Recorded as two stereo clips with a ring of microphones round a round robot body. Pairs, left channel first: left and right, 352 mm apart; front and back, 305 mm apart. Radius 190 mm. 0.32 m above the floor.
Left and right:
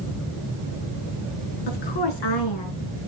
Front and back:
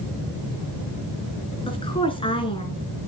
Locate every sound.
1.7 s a woman speaking: 75° left, 4.5 m